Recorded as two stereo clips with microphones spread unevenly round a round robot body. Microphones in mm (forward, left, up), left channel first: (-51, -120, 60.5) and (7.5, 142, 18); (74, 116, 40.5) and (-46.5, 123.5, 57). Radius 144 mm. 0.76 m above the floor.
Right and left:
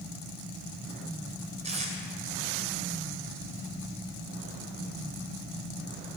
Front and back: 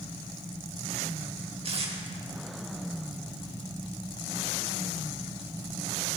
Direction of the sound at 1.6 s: 145° left.